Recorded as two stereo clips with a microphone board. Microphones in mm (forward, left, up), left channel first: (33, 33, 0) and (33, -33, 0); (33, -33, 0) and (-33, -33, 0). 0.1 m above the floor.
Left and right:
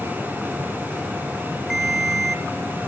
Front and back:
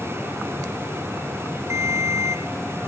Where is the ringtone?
170° right, 1.6 m.